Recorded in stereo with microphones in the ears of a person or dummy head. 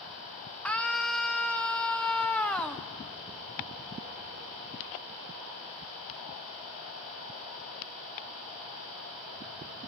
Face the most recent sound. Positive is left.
turn(degrees=5)  # may be behind; listen again after turning